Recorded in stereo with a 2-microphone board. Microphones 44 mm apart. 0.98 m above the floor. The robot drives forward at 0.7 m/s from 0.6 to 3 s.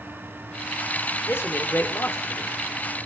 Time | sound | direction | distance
1.3 | a man speaking | 70° left (ahead or behind) | 2.5 m